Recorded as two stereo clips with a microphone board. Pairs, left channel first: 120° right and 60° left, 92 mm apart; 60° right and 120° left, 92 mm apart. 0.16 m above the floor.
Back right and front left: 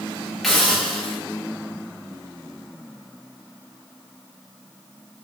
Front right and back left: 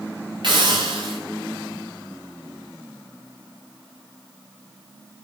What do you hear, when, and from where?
0.4 s a hiss: 155° left, 8.5 m